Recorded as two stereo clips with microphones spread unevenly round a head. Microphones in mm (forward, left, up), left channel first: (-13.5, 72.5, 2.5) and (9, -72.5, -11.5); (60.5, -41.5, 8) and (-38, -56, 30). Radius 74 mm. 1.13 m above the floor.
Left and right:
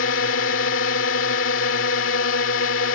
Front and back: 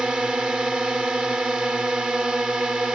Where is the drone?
105° left.